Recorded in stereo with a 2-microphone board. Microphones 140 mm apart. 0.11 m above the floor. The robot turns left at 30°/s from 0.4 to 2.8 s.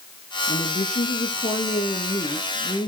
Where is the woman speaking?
80° left, 3.5 m; by 2.9 s 10° left, 3.5 m.